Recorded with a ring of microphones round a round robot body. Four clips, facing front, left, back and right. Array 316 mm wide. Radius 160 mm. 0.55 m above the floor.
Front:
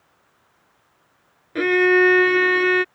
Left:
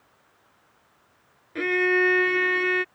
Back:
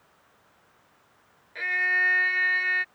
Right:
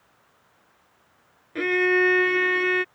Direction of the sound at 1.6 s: Straight ahead.